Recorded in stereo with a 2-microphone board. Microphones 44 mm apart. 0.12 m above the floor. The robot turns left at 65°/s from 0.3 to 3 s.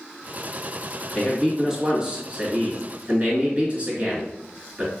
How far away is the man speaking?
About 1.8 m.